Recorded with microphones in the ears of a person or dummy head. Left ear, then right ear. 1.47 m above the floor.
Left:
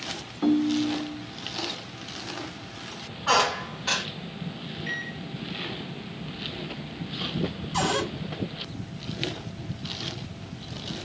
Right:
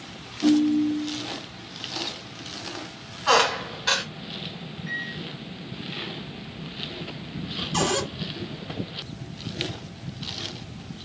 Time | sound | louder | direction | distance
0.4 | a ringtone | right 3 dB | 45° left (ahead or behind) | 0.9 m
3.3 | a squeak | right 2 dB | 10° right (ahead or behind) | 0.9 m
4.9 | a microwave | right 2 dB | 30° left (ahead or behind) | 0.9 m
7.7 | a cupboard door | right 1 dB | 20° right (ahead or behind) | 1.4 m